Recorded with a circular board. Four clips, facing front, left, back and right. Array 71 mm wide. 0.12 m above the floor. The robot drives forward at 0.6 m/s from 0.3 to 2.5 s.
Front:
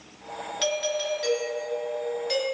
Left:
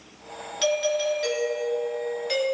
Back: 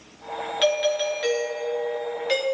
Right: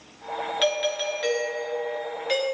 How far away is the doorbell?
About 2.5 m.